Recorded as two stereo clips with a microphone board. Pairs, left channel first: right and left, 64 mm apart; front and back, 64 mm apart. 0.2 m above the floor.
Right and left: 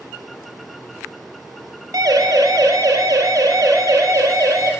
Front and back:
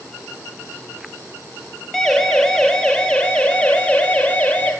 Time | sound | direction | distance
1.9 | a siren | 80° left | 5 m